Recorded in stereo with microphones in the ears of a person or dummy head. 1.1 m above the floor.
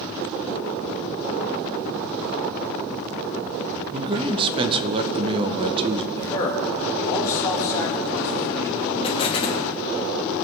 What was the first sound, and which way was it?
A man speaking, 25° right (ahead or behind).